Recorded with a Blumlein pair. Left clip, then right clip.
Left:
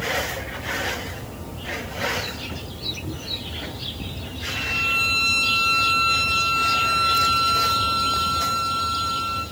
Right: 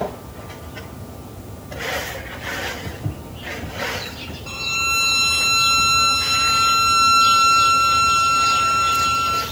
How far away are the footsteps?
About 4 m.